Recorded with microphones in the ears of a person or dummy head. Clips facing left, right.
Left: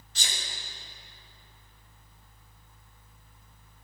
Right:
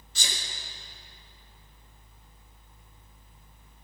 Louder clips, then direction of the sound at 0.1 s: Right 2 dB; 75° right (ahead or behind).